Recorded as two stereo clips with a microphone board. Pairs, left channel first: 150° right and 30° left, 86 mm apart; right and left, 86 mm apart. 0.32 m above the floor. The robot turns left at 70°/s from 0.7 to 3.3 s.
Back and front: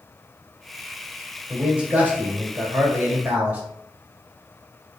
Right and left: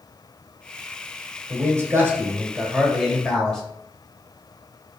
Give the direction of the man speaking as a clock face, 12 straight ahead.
8 o'clock.